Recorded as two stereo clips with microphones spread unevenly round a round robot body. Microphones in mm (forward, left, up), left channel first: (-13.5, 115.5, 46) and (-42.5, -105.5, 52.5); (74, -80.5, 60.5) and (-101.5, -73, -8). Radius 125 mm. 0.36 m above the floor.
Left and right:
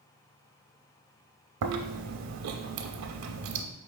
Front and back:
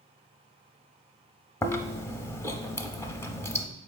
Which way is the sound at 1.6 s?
80° right.